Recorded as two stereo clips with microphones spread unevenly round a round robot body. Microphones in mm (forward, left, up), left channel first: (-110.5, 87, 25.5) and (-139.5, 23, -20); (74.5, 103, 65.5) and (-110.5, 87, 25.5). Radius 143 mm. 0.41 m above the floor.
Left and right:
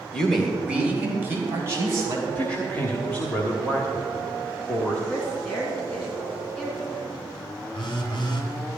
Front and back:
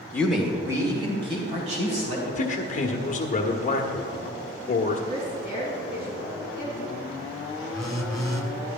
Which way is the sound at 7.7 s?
100° left.